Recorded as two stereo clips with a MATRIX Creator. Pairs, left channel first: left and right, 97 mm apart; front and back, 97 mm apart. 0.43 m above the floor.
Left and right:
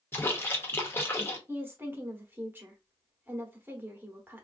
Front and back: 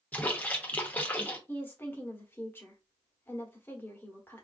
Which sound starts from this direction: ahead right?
A woman speaking, at 1.5 s.